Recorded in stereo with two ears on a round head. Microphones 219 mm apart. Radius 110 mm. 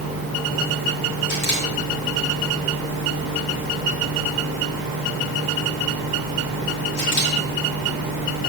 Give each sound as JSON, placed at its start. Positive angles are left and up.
{"t": 1.3, "sound": "a camera shutter", "side_deg": 45, "distance_m": 4.0}